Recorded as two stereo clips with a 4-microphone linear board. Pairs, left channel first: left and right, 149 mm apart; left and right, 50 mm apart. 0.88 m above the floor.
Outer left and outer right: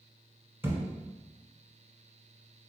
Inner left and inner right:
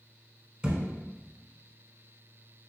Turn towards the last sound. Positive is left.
turn(degrees=-15)  # may be behind; listen again after turning